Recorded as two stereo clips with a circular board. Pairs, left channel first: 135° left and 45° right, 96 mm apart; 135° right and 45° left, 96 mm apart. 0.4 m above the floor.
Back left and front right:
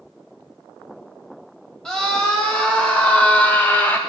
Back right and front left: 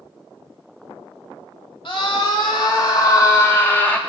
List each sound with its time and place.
1.9 s a scream: 140° right, 2.0 m; by 4.0 s 165° left, 1.1 m